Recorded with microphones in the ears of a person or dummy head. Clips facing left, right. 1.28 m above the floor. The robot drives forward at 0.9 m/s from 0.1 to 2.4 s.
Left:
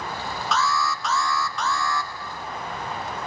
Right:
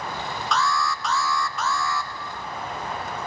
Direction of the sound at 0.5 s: Centre (ahead or behind).